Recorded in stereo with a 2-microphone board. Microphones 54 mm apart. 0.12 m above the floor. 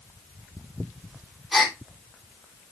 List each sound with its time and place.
1.5 s a gasp: centre (ahead or behind), 2.5 m